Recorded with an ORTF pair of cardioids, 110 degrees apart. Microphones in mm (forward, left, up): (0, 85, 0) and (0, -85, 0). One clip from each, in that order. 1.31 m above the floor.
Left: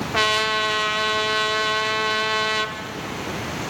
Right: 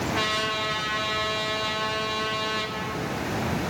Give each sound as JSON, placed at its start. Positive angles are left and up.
{"t": 0.1, "sound": "a trumpet", "azimuth_deg": 50, "distance_m": 2.0}